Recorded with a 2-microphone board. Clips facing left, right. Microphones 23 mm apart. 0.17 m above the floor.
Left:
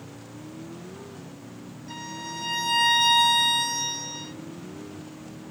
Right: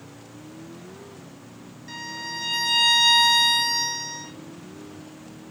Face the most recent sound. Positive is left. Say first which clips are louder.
# right 3 dB
turn(degrees=-35)  # may be behind; listen again after turning